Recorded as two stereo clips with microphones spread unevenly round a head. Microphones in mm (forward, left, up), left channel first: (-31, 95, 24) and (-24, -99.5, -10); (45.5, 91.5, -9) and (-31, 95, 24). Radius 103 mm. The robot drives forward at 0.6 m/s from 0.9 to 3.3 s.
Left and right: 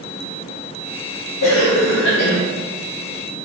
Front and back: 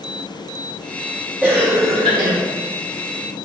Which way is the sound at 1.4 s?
95° left.